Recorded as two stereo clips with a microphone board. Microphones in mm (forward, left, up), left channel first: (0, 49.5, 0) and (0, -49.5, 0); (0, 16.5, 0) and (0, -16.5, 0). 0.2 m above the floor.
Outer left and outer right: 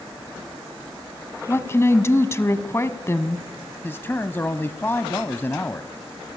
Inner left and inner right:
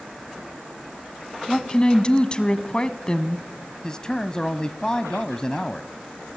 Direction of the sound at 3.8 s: 25° left (ahead or behind).